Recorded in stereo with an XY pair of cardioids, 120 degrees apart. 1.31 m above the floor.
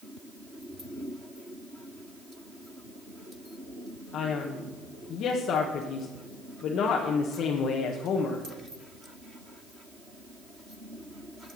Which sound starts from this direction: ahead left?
A man speaking, at 4.1 s.